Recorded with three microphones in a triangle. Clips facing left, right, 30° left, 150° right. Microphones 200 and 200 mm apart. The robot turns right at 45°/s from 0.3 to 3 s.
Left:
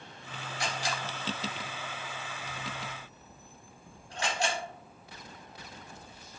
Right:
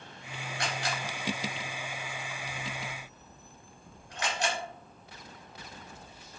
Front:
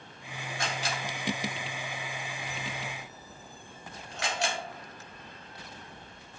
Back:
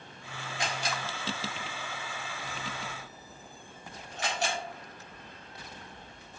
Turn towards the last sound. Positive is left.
turn(degrees=30)